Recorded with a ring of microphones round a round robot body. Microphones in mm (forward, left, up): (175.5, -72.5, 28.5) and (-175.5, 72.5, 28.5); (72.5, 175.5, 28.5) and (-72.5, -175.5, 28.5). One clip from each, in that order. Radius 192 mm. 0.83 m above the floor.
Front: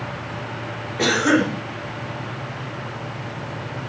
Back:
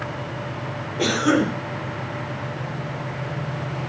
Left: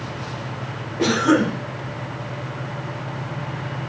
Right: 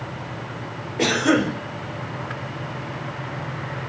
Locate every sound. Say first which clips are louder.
1.0 s a cough: front 2 dB, left 1 dB; 110° right, 4.5 m